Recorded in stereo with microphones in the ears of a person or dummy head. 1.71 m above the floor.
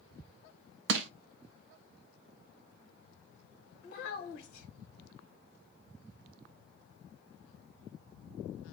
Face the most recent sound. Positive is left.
turn(degrees=55)  # may be behind; listen again after turning